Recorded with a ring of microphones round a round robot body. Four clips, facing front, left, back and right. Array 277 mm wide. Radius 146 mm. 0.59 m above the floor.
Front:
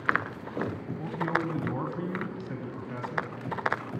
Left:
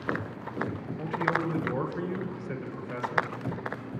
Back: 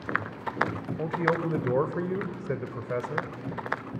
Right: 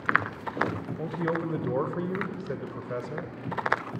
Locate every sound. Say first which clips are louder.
1.0 s a man speaking: left 1 dB, back 3 dB; 160° right, 2.5 m